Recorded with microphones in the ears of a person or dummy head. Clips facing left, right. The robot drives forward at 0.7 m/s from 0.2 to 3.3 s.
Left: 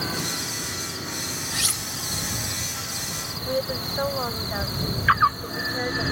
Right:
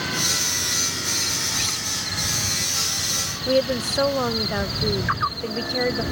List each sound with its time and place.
1.5 s cutlery clinking: 20° left (ahead or behind); by 1.8 s 15° left (ahead or behind)
3.5 s a woman speaking: 40° right (ahead or behind)